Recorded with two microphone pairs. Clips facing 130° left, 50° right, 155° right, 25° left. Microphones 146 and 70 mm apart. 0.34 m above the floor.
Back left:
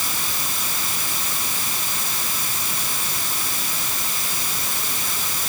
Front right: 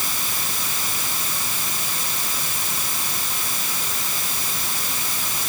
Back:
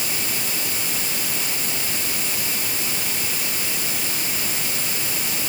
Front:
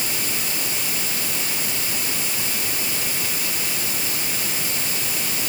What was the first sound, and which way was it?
Only background noise.